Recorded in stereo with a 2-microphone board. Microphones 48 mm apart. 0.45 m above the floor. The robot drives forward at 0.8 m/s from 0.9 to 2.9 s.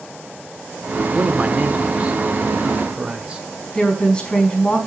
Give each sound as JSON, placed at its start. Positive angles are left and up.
{"t": 1.1, "sound": "a man speaking", "side_deg": -30, "distance_m": 1.2}
{"t": 3.7, "sound": "a woman speaking", "side_deg": 20, "distance_m": 4.5}